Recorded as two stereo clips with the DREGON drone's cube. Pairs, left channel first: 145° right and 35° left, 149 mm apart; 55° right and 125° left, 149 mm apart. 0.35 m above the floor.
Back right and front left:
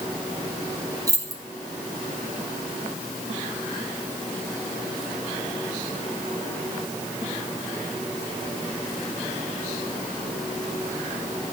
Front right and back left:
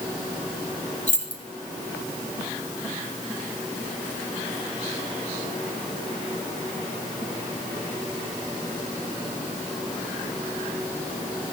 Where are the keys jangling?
30° right, 1.8 m.